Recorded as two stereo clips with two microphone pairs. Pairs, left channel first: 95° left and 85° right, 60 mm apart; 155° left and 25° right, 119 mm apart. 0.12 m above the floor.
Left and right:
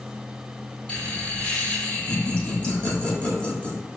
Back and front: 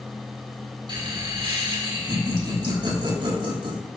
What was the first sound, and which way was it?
Laughter, 25° left.